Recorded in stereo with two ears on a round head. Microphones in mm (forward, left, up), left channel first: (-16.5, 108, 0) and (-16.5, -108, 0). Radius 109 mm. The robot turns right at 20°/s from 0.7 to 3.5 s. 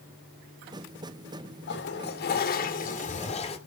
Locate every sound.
1.7 s a toilet flushing: 110° left, 2 m; by 3.6 s 145° left, 2 m